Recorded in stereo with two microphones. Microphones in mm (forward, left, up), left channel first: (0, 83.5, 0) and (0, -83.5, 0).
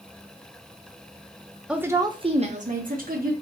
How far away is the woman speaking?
About 0.6 m.